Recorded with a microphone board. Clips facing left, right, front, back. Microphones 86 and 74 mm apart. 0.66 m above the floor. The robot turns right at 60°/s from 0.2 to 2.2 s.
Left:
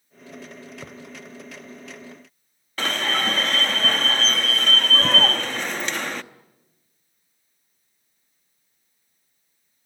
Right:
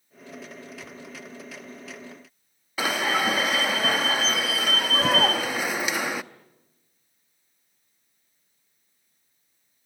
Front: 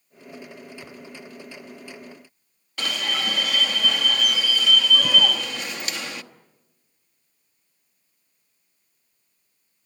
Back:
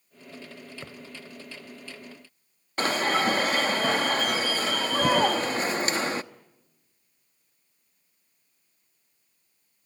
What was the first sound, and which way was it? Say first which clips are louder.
A thud: left 3 dB, front 1 dB; 120° left.